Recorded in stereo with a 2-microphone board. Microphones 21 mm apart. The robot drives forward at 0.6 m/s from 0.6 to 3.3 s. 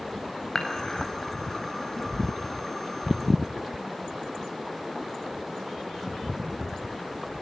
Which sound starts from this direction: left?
Dishes clattering, at 0.6 s.